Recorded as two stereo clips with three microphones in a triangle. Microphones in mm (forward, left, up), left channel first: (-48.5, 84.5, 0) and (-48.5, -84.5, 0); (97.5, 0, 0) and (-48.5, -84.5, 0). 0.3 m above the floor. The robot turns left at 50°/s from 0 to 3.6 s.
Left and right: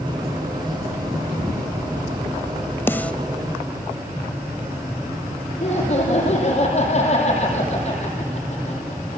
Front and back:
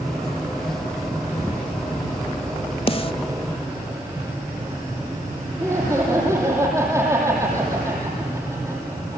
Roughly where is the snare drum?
Ahead left.